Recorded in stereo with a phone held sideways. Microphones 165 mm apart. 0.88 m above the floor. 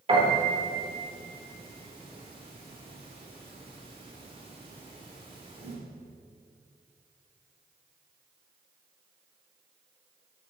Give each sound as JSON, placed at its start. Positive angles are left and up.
{"t": 0.1, "sound": "a piano", "side_deg": -35, "distance_m": 3.0}